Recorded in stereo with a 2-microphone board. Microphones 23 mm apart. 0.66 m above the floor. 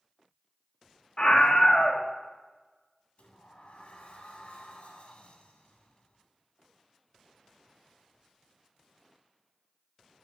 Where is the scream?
45° left (ahead or behind), 0.8 m.